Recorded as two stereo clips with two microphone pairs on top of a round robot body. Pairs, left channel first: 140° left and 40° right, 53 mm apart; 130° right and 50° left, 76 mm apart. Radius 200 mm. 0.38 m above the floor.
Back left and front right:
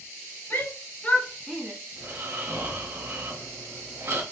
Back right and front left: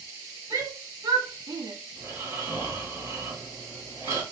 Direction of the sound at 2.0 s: 5° right.